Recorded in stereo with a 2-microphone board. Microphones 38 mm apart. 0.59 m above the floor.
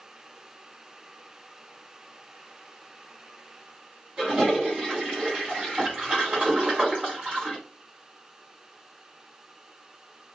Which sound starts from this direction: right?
A toilet flushing, at 4.2 s.